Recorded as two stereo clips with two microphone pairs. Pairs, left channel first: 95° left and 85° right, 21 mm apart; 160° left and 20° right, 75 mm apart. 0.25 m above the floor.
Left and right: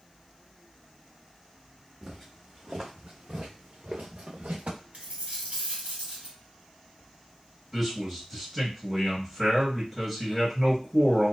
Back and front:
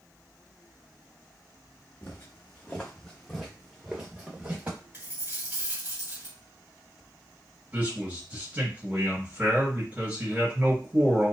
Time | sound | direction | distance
2.0 | footsteps | 150° right | 1.1 m
4.9 | a dropped coin | 80° right | 1.6 m
7.7 | a man speaking | 5° left | 1.6 m